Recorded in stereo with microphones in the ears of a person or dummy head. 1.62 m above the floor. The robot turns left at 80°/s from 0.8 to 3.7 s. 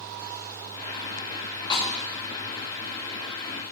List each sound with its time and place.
1.7 s a snare drum: 25° left (ahead or behind), 2.5 m; by 1.9 s 40° left (ahead or behind), 2.5 m